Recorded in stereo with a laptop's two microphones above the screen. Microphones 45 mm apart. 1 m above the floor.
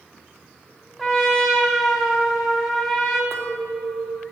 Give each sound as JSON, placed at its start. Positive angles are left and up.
{"t": 1.0, "sound": "a trumpet", "side_deg": 10, "distance_m": 1.2}
{"t": 3.3, "sound": "a clink", "side_deg": -75, "distance_m": 1.3}